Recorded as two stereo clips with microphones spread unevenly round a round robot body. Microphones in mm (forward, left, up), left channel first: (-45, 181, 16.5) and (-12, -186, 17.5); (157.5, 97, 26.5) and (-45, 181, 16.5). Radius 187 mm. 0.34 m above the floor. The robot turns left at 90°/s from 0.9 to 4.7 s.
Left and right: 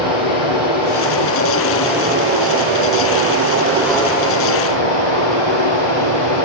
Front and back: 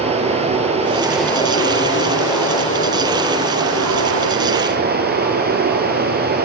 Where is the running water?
95° left, 3.5 m; by 6.5 s 115° left, 3.5 m.